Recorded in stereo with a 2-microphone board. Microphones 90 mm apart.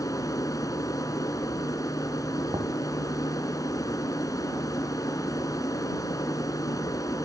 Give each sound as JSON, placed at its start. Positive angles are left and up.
{"t": 0.0, "sound": "an aircraft", "side_deg": 45}
{"t": 2.5, "sound": "knocking", "side_deg": -55}